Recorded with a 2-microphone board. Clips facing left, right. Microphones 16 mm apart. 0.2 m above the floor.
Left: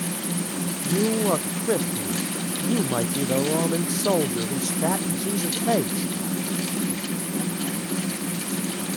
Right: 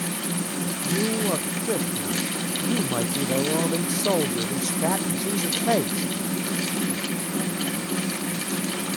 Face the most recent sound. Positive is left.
turn(degrees=-15)  # may be behind; listen again after turning